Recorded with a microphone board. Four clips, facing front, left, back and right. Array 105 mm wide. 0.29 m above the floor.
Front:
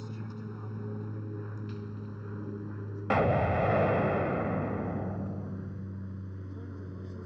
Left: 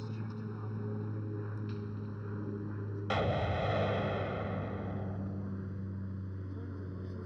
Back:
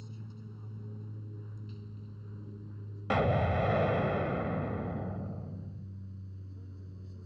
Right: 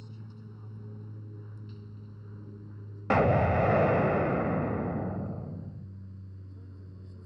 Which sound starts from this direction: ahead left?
An aircraft, at 0.0 s.